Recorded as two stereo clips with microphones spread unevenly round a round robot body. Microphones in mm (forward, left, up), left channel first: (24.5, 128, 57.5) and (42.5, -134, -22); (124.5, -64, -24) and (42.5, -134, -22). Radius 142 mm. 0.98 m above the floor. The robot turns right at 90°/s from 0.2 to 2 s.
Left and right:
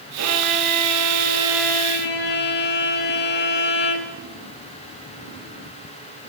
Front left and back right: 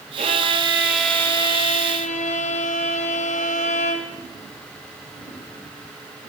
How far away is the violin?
About 4 m.